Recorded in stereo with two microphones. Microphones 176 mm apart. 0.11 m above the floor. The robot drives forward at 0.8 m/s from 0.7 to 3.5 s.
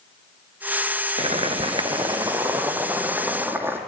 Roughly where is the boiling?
Right.